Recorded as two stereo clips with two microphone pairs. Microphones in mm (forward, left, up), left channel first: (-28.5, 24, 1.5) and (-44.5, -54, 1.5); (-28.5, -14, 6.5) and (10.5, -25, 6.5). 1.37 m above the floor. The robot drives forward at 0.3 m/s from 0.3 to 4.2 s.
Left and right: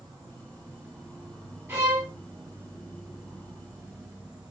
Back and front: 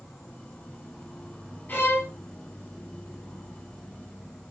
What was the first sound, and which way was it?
An insect, 120° right.